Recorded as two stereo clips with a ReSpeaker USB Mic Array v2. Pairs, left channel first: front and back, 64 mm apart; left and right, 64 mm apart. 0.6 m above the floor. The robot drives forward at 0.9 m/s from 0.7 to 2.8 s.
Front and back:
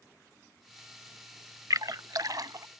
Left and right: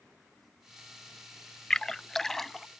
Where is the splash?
170° left; by 2.7 s 175° left.